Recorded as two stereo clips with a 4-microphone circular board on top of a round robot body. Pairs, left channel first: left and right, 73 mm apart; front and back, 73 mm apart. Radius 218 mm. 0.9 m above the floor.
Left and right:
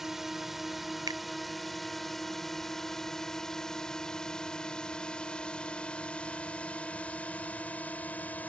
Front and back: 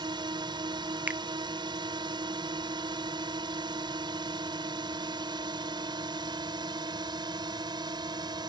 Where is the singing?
No singing in this recording.